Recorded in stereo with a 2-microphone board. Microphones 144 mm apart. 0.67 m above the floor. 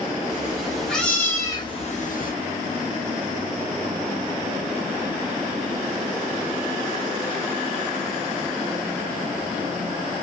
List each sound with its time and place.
0.3 s a cat meowing: 5° right (ahead or behind), 1.3 m; by 2.3 s 70° left (ahead or behind), 0.6 m